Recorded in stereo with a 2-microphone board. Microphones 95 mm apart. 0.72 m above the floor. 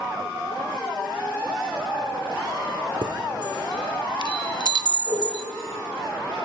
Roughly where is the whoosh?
Right.